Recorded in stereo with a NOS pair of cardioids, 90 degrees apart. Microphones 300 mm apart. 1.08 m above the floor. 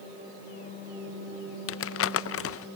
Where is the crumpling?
45° left, 0.6 m.